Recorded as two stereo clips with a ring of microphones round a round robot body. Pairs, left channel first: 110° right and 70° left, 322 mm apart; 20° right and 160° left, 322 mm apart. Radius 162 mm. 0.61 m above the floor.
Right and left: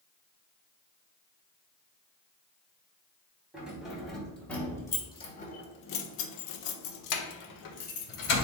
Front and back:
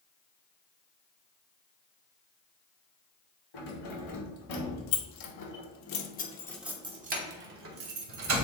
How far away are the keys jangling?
About 3 m.